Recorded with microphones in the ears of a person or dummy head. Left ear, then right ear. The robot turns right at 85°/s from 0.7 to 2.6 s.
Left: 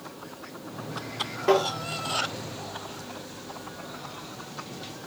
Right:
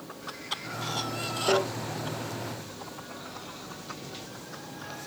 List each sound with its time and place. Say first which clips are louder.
1.5 s tapping: left 3 dB; 80° left, 6.5 m; by 1.7 s 65° left (ahead or behind), 6.5 m